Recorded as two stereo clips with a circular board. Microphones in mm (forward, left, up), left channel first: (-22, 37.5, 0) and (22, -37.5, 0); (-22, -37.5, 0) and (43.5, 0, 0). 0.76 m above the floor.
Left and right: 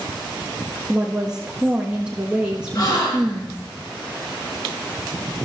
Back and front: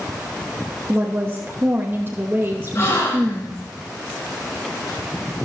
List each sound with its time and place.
0.9 s a woman speaking: 10° left, 1.1 m
2.8 s a gasp: 160° left, 3.5 m